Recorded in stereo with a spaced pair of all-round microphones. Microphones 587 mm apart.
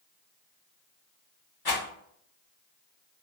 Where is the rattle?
40° left (ahead or behind), 1.0 m.